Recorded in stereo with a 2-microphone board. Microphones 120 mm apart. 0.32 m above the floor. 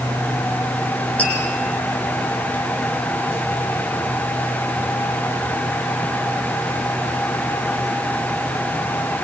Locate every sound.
1.2 s tapping: 10° left (ahead or behind), 8 m